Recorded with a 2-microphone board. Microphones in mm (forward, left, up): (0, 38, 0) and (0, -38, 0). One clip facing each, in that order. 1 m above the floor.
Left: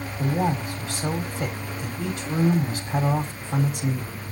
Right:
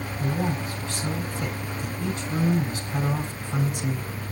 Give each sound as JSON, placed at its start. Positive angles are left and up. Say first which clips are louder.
{"t": 0.2, "sound": "a man speaking", "louder": "left 4 dB", "side_deg": 75, "distance_m": 3.0}